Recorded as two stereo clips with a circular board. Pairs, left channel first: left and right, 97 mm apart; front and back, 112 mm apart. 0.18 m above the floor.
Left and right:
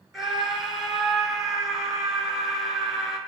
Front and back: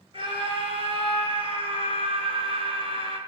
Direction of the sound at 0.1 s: 175° right.